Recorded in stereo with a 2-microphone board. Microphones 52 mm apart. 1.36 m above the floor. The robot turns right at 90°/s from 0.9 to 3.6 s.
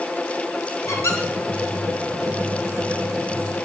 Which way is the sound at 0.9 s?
70° left (ahead or behind).